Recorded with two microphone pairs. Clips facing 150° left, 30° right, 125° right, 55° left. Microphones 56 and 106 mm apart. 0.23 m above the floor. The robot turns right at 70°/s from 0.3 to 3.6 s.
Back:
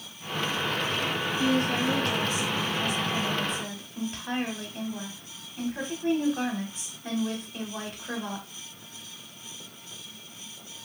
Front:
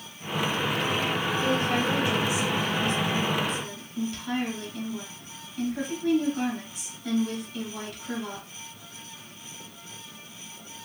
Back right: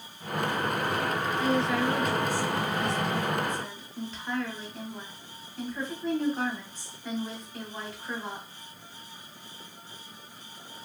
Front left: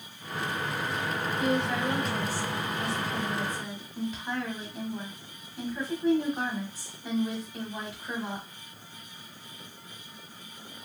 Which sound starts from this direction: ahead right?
A woman speaking, at 1.4 s.